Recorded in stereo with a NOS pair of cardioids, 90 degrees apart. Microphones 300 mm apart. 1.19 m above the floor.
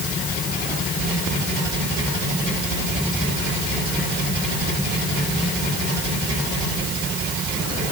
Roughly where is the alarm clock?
No alarm clock in this recording.